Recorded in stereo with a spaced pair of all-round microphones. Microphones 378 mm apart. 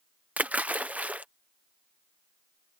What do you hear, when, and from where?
0.4 s a splash: 5° right (ahead or behind)